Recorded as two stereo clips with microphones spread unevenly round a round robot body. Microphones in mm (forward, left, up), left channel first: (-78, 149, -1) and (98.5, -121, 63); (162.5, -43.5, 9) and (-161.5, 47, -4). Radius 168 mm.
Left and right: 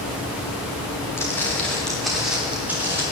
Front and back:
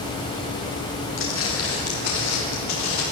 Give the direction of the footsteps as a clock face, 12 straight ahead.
11 o'clock.